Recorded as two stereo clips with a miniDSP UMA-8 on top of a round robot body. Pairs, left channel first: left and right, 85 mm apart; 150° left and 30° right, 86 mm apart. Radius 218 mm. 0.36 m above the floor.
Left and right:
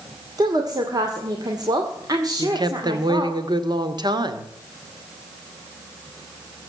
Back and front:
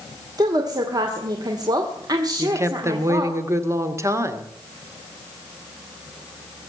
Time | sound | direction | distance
0.4 | a woman speaking | 60° right | 2.5 m
2.4 | a woman speaking | 80° right | 2 m